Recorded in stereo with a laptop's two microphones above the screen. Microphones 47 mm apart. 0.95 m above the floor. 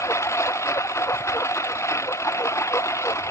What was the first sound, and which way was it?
A lawn mower, 85° left.